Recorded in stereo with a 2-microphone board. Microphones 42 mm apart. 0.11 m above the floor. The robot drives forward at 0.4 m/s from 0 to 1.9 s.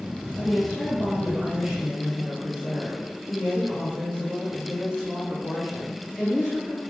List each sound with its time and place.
0.4 s a woman speaking: 5° right (ahead or behind), 1.5 m; by 6.8 s centre (ahead or behind), 1.9 m